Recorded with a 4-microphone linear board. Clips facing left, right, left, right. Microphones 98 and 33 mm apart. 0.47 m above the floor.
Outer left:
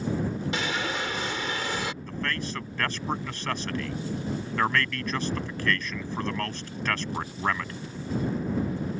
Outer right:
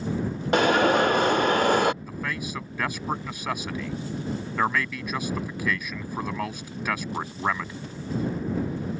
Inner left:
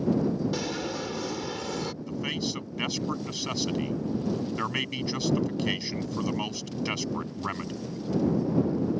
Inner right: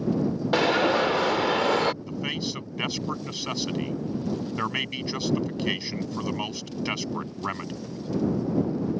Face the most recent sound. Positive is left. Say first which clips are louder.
# even, inner right 1 dB
turn(degrees=-10)  # may be behind; listen again after turning